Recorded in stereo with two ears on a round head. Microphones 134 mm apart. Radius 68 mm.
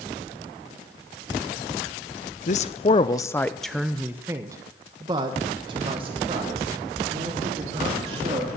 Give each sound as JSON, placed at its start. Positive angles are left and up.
{"t": 2.5, "sound": "a man speaking", "side_deg": 50, "distance_m": 0.7}